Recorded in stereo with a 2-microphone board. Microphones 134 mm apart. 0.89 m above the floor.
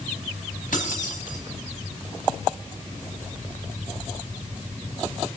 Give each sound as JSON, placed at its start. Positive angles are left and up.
{"t": 0.7, "sound": "keys jangling", "side_deg": 80, "distance_m": 4.5}